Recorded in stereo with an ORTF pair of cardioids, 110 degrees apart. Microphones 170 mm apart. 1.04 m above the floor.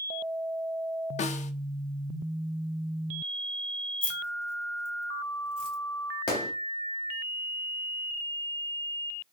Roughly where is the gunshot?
Ahead left.